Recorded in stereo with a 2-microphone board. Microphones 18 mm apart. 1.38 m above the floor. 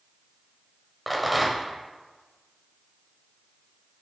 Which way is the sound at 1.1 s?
Centre (ahead or behind).